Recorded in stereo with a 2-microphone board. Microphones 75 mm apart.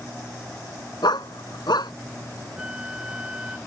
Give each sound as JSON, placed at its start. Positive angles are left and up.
{"t": 1.0, "sound": "a dog barking", "side_deg": 85}
{"t": 2.6, "sound": "a flute", "side_deg": -10}